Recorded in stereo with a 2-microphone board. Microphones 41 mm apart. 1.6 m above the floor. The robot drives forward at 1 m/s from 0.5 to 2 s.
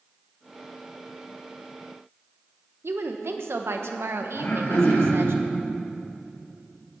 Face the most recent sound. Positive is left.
turn(degrees=65)  # may be behind; listen again after turning